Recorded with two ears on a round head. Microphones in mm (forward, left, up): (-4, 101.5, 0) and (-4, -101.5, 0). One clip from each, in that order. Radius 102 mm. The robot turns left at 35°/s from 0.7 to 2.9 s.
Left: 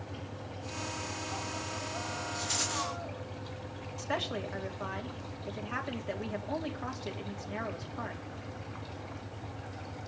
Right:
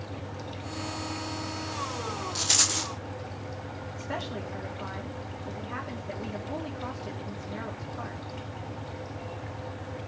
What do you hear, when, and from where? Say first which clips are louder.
2.4 s a rattle: right 9 dB; 45° right (ahead or behind), 0.7 m; by 2.9 s 25° right (ahead or behind), 0.7 m
4.0 s a woman speaking: left 2 dB; 30° left (ahead or behind), 2.5 m